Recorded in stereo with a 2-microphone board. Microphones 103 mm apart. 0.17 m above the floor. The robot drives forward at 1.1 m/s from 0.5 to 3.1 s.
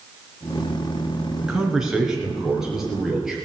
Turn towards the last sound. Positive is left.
turn(degrees=-5)  # may be behind; listen again after turning